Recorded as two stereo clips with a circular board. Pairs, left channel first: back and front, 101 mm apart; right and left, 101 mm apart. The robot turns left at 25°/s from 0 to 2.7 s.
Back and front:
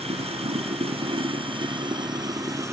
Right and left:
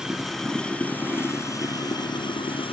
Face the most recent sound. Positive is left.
turn(degrees=-60)